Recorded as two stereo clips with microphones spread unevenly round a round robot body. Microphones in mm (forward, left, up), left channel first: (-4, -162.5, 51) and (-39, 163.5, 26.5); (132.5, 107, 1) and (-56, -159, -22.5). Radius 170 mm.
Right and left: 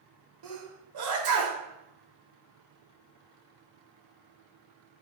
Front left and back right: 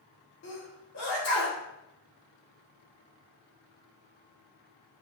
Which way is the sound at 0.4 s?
110° left.